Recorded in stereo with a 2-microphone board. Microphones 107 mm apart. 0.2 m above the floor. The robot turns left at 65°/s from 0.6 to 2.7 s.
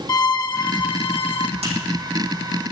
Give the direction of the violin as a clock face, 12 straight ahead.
8 o'clock.